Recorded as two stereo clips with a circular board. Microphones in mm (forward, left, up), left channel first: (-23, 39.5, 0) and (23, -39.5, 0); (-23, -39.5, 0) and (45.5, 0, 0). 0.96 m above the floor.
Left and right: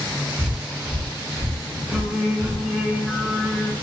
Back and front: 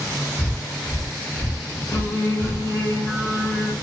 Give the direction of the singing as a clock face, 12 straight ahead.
5 o'clock.